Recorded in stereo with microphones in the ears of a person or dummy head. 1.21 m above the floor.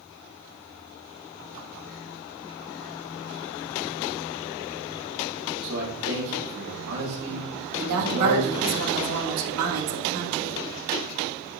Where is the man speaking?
85° right, 3 m.